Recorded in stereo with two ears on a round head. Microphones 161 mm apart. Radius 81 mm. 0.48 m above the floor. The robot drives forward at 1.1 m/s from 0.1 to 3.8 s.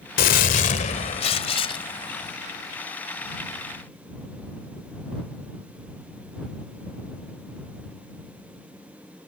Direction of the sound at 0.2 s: 50° left (ahead or behind).